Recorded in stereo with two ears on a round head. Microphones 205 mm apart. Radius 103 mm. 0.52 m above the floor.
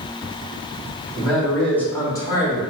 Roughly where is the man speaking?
Centre.